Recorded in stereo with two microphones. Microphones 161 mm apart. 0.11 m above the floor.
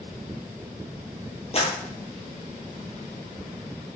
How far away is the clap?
About 2.5 m.